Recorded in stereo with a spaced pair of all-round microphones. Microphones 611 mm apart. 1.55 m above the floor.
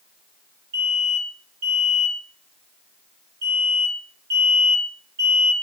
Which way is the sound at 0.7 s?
85° right.